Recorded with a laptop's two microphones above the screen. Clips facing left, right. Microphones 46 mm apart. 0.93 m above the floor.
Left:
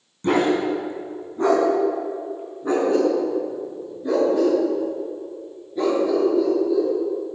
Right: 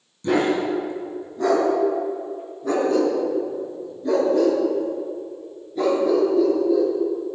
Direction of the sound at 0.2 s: 45° left (ahead or behind).